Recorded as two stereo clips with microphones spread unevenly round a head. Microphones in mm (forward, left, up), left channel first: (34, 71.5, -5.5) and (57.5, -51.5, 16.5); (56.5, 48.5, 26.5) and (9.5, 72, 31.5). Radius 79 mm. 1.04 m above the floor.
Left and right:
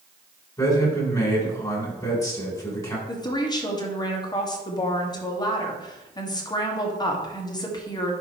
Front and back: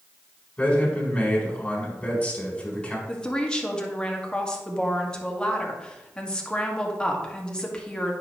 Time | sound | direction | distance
0.6 | a man speaking | 40° left | 3.5 m
3.1 | a woman speaking | 45° left | 1.8 m